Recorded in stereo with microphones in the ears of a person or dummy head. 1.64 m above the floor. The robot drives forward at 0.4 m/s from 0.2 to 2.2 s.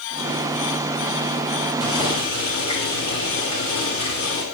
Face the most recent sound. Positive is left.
turn(degrees=30)  # may be behind; listen again after turning